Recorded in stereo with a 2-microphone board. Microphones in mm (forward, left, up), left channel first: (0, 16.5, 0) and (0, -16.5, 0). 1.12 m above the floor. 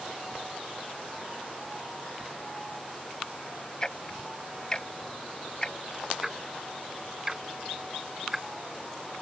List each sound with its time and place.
3.8 s ticking: 25° left (ahead or behind)
6.2 s ticking: 5° right (ahead or behind)